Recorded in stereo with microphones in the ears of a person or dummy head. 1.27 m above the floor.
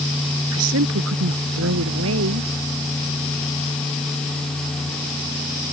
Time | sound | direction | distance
0.5 | a woman speaking | 85° right | ?